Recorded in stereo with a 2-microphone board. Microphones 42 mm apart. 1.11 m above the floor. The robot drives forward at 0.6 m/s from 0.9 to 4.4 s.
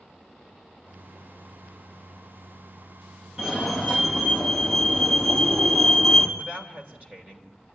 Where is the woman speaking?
35° right (ahead or behind), 4 m.